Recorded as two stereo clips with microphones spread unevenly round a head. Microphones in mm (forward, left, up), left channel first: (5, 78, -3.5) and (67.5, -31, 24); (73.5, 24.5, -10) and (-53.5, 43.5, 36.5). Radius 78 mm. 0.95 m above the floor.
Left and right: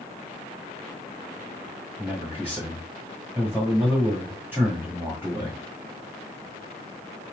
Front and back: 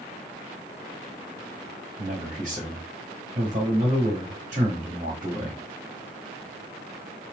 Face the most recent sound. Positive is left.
turn(degrees=-140)